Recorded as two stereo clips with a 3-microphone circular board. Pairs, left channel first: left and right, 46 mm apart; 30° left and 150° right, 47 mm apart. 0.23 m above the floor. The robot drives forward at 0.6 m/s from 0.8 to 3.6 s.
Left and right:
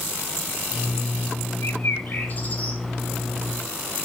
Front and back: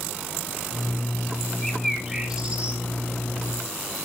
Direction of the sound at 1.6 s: 110° left.